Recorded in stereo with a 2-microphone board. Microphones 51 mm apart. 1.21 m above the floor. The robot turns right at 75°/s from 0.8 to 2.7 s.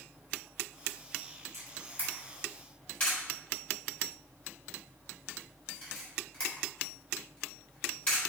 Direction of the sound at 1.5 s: 65° right (ahead or behind).